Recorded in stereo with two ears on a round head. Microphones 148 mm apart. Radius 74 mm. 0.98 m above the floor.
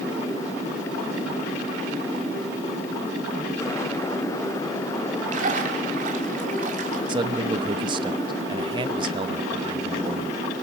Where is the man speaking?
30° right (ahead or behind), 0.9 m.